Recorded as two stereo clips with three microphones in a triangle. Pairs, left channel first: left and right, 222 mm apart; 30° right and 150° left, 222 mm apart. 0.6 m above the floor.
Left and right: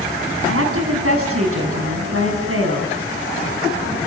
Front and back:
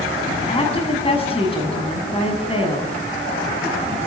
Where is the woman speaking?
95° right, 6 m.